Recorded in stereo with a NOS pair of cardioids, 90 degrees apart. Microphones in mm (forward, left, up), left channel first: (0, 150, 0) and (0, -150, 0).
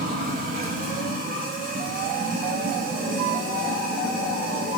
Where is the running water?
30° right, 3.5 m.